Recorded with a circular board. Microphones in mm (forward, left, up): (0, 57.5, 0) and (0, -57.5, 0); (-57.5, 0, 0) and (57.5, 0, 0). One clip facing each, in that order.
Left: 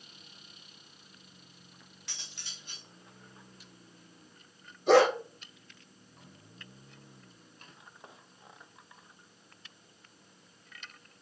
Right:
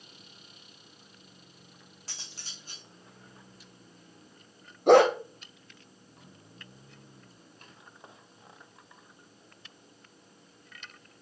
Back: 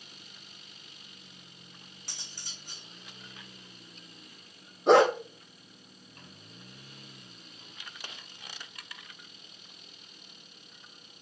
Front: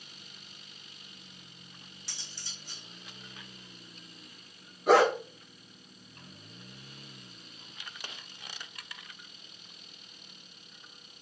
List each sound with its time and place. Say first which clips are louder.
2.1 s cutlery clinking: right 1 dB, back 2 dB; 140° right, 4 m
4.9 s a dog barking: right 3 dB, back 2 dB; 115° right, 2.5 m